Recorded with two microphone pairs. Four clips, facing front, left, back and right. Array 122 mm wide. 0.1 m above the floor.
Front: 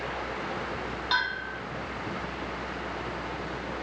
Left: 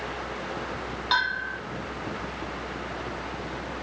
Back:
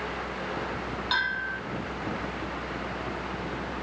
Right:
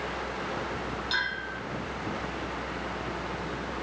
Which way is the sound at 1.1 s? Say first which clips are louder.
Left 6 dB, even; 100° left.